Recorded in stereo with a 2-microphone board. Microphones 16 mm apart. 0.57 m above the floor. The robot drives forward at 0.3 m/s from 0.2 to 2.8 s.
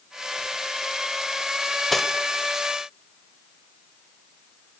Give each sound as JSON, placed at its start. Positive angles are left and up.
{"t": 1.9, "sound": "cutlery clinking", "side_deg": 10, "distance_m": 1.2}